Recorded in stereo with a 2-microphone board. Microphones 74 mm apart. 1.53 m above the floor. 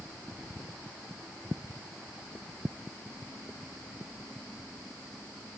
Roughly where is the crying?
No crying in this recording.